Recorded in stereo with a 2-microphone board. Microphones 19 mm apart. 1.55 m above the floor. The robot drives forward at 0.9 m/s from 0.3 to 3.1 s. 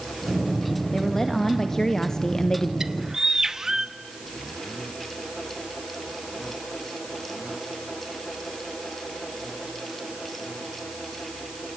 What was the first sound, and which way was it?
A woman speaking, 15° left (ahead or behind).